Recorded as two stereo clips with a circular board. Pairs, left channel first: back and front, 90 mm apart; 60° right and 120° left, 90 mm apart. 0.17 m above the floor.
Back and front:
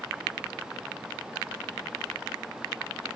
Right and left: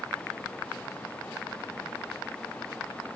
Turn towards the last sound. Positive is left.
No sound to turn to.